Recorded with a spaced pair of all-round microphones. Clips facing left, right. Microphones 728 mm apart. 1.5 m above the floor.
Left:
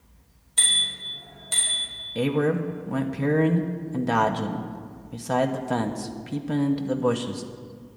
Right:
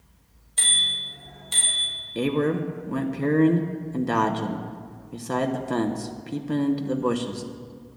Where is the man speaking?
20° left (ahead or behind), 0.9 m.